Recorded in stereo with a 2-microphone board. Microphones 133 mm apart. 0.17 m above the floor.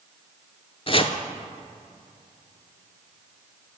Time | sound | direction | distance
0.9 | chopping | 45° left (ahead or behind) | 0.5 m